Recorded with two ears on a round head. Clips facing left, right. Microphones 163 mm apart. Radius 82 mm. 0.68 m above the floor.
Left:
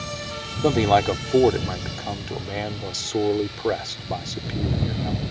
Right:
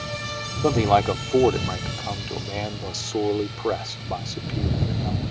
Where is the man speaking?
10° left (ahead or behind).